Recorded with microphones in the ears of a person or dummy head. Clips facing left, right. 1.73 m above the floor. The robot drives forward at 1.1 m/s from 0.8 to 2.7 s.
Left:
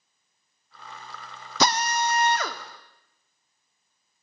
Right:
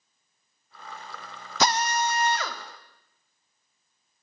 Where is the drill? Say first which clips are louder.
Left 1 dB; 75° left (ahead or behind), 0.8 m; by 2.6 s 35° left (ahead or behind), 1.3 m.